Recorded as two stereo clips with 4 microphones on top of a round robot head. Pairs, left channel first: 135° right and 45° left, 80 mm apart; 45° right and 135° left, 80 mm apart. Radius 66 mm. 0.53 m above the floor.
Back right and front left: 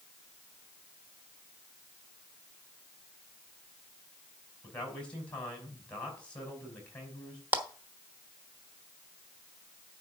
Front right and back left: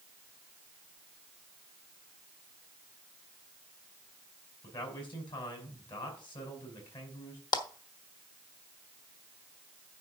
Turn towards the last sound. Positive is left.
turn(degrees=-20)